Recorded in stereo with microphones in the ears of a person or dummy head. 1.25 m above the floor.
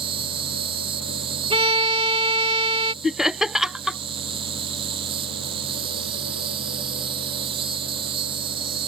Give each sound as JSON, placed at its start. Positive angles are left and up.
{"t": 0.0, "sound": "an insect", "side_deg": -25}
{"t": 1.5, "sound": "a violin", "side_deg": -30}
{"t": 3.0, "sound": "laughter", "side_deg": 0}